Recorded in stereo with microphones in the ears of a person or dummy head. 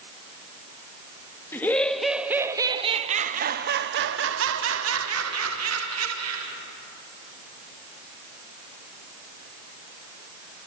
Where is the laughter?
15° left (ahead or behind), 1.1 m; by 6.5 s 85° right, 2 m.